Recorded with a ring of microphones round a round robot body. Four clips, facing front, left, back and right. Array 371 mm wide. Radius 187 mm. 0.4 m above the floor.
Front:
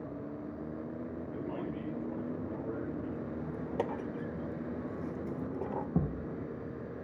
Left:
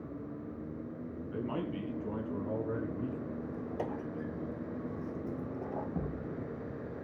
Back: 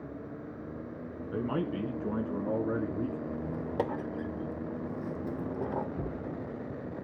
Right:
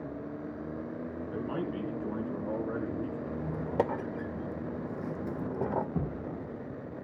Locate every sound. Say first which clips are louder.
1.3 s a man speaking: right 1 dB, back 9 dB; 175° right, 4 m; by 3.2 s 170° right, 5 m
3.3 s a squeak: right 4 dB, back 3 dB; 100° right, 0.7 m
6.0 s a thud: right 2 dB, front 1 dB; 20° right, 7 m